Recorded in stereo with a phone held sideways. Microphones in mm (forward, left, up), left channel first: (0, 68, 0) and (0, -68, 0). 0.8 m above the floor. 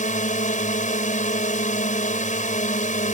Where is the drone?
70° left (ahead or behind).